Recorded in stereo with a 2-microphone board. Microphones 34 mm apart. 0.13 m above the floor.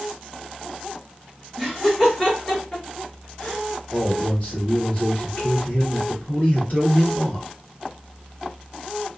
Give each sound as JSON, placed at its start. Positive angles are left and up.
{"t": 1.6, "sound": "laughter", "side_deg": 5, "distance_m": 1.8}
{"t": 3.9, "sound": "a man speaking", "side_deg": 45, "distance_m": 2.0}